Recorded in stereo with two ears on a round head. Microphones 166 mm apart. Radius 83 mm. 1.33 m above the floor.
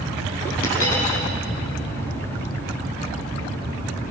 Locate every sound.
0.6 s a dropped coin: 85° left, 7 m